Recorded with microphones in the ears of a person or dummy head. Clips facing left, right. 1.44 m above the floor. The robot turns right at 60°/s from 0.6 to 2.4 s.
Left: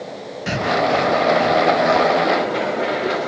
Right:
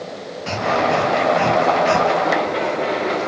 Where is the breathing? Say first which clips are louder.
Even; 15° left (ahead or behind), 0.7 m; by 2.1 s 60° right (ahead or behind), 0.7 m.